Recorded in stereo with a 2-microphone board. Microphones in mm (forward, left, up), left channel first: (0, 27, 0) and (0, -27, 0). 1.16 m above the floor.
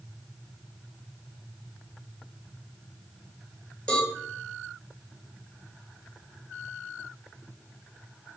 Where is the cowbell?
10° left (ahead or behind), 1.0 m.